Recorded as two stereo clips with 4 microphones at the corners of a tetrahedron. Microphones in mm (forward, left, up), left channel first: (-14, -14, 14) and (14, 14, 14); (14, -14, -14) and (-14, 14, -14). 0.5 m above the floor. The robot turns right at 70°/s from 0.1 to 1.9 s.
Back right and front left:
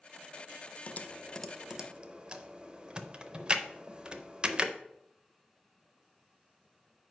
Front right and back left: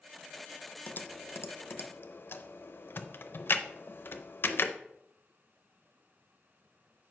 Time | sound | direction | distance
0.9 | typing on a keyboard | 95° right | 0.5 m